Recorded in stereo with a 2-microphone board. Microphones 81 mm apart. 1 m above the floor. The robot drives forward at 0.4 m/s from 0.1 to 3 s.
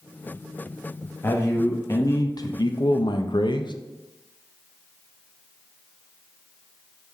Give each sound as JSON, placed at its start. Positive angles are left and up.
{"t": 1.2, "sound": "a man speaking", "side_deg": 30, "distance_m": 1.0}